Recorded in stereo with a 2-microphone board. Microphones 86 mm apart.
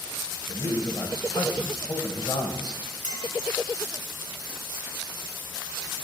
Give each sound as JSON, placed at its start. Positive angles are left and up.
{"t": 0.5, "sound": "a man speaking", "side_deg": 50, "distance_m": 2.0}
{"t": 3.0, "sound": "a clink", "side_deg": 45, "distance_m": 2.5}